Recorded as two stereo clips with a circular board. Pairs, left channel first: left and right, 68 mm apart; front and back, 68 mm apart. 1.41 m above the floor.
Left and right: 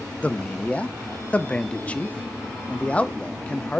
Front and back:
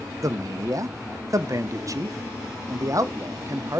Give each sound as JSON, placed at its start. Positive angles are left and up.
{"t": 0.2, "sound": "a man speaking", "azimuth_deg": 160, "distance_m": 0.6}